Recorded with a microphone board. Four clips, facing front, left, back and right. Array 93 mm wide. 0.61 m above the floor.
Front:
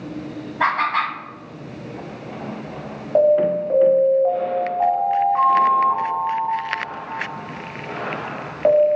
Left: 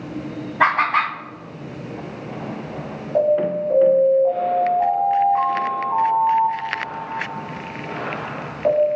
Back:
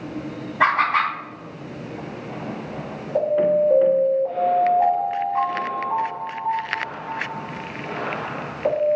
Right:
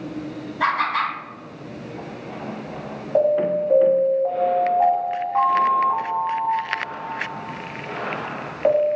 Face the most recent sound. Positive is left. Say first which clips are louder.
# even, front 3 dB
turn(degrees=-30)